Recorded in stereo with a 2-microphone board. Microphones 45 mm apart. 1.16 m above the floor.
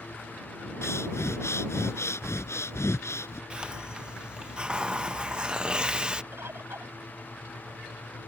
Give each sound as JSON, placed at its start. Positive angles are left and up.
{"t": 0.8, "sound": "breathing", "side_deg": 85}
{"t": 3.5, "sound": "a hiss", "side_deg": -20}
{"t": 6.3, "sound": "a bird", "side_deg": -65}